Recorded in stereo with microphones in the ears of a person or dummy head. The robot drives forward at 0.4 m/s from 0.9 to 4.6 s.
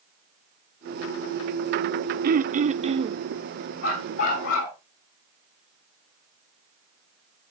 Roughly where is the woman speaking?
No woman speaking in this recording.